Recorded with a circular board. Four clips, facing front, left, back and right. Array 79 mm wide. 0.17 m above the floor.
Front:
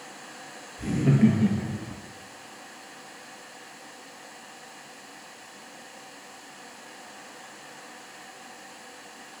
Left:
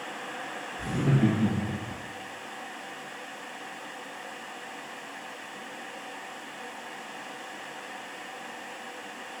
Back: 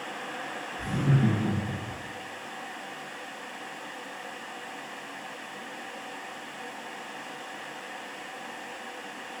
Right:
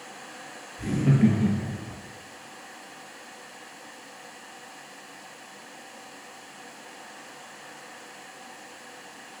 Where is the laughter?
45° right, 3 m; by 2.0 s 15° right, 1.6 m.